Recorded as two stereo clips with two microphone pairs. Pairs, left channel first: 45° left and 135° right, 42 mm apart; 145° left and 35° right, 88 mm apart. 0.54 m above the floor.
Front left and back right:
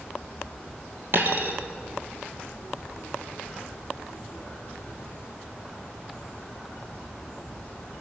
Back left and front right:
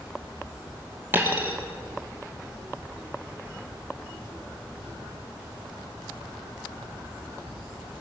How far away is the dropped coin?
About 2 m.